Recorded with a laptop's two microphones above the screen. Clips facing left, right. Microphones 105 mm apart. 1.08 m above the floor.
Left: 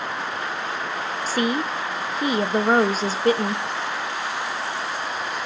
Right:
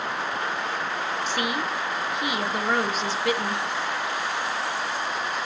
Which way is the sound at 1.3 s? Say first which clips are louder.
Left 7 dB; 35° left (ahead or behind).